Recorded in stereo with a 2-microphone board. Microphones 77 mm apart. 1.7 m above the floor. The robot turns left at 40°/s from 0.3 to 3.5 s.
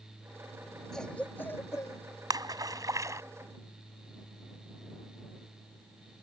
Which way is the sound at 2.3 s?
60° right (ahead or behind).